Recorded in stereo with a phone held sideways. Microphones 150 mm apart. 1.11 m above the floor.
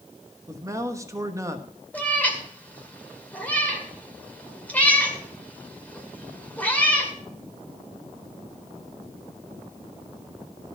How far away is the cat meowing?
About 2 m.